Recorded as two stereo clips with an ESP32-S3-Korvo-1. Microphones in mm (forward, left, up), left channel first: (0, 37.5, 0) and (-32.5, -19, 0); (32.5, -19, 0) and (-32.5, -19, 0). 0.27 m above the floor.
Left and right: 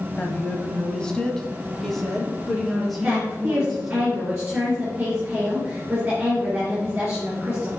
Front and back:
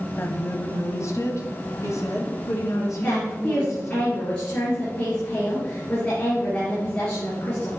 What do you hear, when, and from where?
0.2 s a woman speaking: 10° left, 1.1 m; by 4.0 s 35° right, 3.5 m
3.0 s a woman speaking: 45° right, 4 m